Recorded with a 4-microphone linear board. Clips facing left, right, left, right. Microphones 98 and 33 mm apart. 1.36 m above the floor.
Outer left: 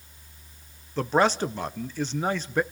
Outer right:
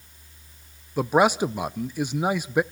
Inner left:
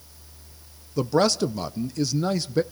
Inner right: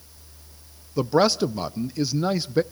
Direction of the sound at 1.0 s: 10° right (ahead or behind).